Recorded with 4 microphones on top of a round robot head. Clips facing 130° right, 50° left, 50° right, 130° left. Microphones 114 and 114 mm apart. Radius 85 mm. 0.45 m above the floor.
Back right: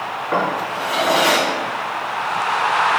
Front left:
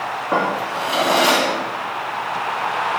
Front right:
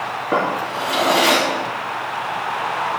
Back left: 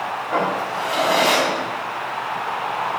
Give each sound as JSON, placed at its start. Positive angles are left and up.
{"t": 0.3, "sound": "a drawer", "azimuth_deg": -15, "distance_m": 2.0}